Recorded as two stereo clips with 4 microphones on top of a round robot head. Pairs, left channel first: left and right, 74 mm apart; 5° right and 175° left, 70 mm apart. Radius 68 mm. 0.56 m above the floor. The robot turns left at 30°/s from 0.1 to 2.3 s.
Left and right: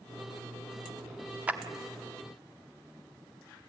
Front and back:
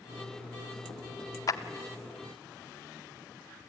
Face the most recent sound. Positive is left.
turn(degrees=-45)